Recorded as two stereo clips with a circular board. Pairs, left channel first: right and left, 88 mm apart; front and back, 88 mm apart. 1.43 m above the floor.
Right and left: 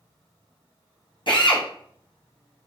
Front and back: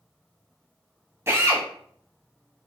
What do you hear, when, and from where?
1.3 s a drill: 120° right, 0.8 m